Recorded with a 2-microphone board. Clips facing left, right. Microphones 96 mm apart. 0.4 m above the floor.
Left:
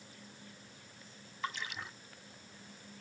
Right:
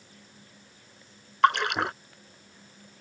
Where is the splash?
75° right (ahead or behind).